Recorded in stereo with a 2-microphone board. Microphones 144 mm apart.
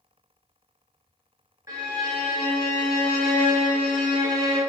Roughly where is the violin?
Right.